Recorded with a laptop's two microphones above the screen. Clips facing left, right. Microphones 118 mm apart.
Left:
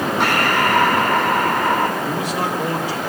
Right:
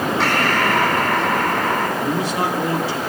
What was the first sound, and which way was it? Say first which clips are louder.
Breathing: left 2 dB; 10° left (ahead or behind).